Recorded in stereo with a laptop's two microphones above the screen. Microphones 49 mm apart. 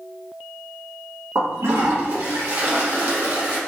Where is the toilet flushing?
65° right (ahead or behind), 1.1 m.